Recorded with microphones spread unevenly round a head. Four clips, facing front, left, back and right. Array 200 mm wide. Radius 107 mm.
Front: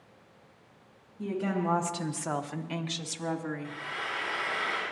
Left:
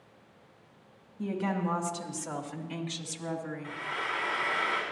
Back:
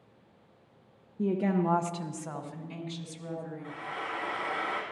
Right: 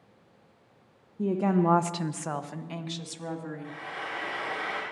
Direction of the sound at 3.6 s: 135° right.